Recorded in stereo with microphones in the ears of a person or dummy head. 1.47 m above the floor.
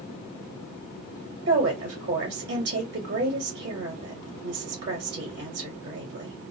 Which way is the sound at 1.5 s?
50° right (ahead or behind).